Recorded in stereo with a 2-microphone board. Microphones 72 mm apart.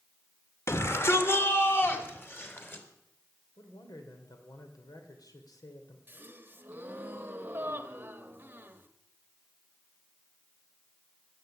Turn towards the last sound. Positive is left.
turn(degrees=-30)  # may be behind; listen again after turning